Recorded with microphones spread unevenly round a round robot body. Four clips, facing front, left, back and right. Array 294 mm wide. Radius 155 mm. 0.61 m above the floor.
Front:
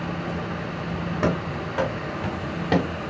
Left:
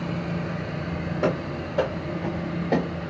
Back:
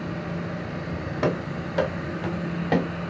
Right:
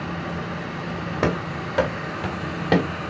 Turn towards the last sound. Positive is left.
turn(degrees=-90)